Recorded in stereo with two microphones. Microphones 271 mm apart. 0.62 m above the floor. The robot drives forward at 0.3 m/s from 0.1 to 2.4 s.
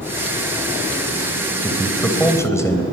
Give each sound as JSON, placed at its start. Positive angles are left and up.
{"t": 1.6, "sound": "a man speaking", "side_deg": 10, "distance_m": 2.5}